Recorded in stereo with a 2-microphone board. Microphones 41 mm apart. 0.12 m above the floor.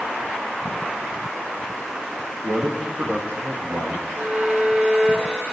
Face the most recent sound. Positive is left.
turn(degrees=-30)  # may be behind; listen again after turning